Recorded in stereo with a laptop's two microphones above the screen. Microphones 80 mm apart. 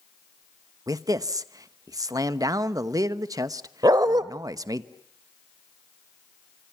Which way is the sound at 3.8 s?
55° right (ahead or behind).